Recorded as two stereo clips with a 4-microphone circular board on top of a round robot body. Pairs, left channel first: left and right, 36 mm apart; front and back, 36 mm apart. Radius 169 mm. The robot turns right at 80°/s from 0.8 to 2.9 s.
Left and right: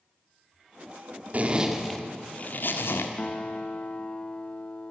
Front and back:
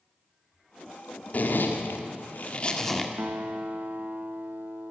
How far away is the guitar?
About 1.0 m.